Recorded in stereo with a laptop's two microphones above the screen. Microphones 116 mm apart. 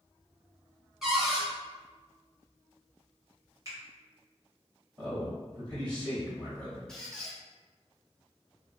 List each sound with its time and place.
1.0 s a cupboard door: 5° right (ahead or behind), 0.9 m
3.6 s a finger snap: 30° right (ahead or behind), 1.2 m
5.0 s a man speaking: 35° right (ahead or behind), 1.3 m
6.9 s a squeak: 5° left (ahead or behind), 0.6 m